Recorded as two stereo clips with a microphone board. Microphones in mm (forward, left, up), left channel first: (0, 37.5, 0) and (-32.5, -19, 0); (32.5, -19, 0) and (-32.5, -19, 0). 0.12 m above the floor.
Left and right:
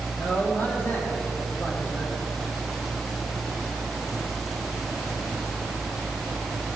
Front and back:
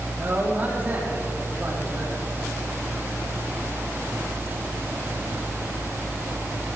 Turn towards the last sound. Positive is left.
turn(degrees=115)